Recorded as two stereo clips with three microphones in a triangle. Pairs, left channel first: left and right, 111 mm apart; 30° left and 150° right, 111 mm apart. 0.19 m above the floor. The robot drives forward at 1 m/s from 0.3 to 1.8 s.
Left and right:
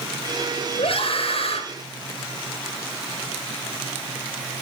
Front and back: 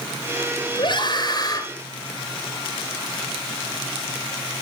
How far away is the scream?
About 3.5 m.